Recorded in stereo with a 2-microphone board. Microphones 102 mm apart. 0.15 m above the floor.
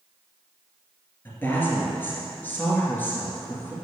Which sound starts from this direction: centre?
A woman speaking, at 1.2 s.